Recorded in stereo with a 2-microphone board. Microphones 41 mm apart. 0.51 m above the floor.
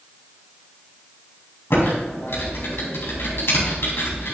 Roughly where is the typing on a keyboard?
Left.